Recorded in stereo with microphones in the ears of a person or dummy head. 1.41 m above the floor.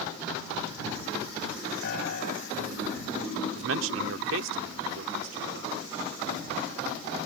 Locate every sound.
1.8 s a piano: 60° left (ahead or behind)
3.5 s a man speaking: 80° right